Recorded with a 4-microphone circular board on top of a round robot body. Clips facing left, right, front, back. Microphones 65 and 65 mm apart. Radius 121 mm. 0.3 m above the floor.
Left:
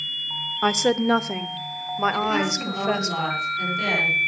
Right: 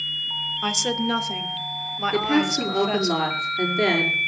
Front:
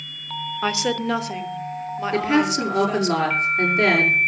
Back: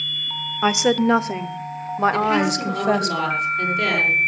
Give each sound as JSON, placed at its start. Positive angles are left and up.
{"t": 0.6, "sound": "a woman speaking", "azimuth_deg": 120, "distance_m": 1.3}
{"t": 2.1, "sound": "a woman speaking", "azimuth_deg": -45, "distance_m": 6.5}